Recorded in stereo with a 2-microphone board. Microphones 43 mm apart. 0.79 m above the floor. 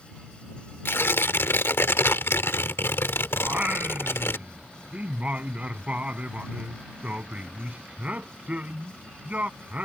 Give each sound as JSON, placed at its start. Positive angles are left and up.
{"t": 0.8, "sound": "tearing paper", "side_deg": 70}
{"t": 3.4, "sound": "singing", "side_deg": -35}